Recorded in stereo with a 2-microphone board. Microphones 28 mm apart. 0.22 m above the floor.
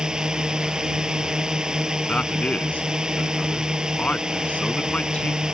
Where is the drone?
25° right (ahead or behind).